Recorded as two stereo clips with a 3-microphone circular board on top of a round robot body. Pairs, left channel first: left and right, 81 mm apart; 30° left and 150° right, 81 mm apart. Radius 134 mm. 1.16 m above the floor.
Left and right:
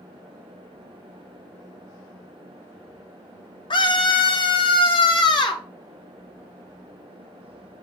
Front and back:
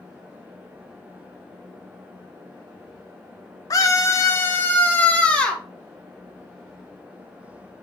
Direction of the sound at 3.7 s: 75° left.